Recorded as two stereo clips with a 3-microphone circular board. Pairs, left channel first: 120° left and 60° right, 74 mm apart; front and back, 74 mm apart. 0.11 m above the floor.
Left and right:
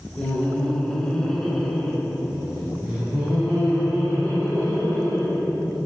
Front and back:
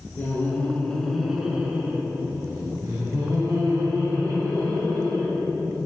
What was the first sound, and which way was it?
Laughter, 50° left.